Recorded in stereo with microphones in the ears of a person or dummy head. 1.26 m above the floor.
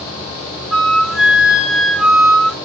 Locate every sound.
0.7 s a flute: centre (ahead or behind), 2 m